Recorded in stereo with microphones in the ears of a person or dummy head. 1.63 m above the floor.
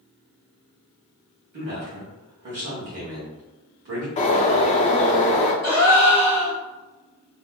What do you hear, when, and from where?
1.5 s a man speaking: 50° right (ahead or behind), 1.2 m
4.2 s a bird: 35° left (ahead or behind), 0.7 m
5.6 s a gasp: 45° right (ahead or behind), 1.9 m